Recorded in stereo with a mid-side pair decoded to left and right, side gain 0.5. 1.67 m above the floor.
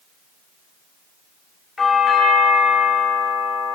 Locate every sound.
1.8 s a doorbell: 25° left, 7 m